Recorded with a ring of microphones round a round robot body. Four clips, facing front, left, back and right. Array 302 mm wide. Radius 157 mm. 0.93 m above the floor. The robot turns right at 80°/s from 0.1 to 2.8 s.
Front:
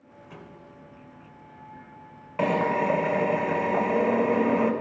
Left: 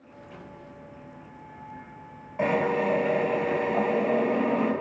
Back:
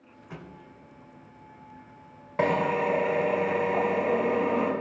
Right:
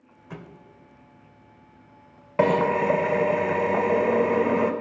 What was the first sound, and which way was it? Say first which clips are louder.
A thud: right 4 dB, back 2 dB; 110° right.